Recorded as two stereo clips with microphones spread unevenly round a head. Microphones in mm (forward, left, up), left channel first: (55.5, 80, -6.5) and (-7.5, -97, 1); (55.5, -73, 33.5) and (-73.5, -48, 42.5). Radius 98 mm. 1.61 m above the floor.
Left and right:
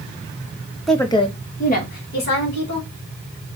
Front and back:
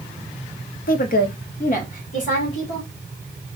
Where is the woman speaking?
20° right, 0.8 m; by 2.9 s 40° left, 3 m.